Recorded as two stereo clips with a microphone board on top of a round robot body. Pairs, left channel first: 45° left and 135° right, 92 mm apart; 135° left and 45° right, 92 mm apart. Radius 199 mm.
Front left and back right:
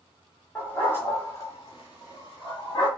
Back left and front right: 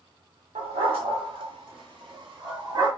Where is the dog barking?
35° right, 1.1 m; by 2.9 s straight ahead, 2 m.